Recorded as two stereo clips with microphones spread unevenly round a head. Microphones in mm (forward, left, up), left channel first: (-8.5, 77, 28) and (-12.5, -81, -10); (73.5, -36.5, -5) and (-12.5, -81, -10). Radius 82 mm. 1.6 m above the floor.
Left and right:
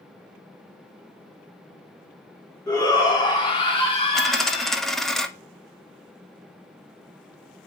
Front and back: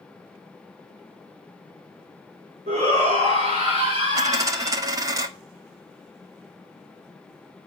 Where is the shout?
155° left, 4 m; by 4.8 s 140° left, 4 m.